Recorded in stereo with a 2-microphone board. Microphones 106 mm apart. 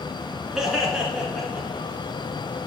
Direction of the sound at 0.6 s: 5° right (ahead or behind).